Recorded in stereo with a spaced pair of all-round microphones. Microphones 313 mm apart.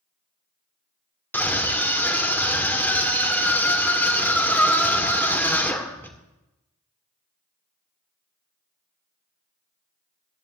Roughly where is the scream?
Centre.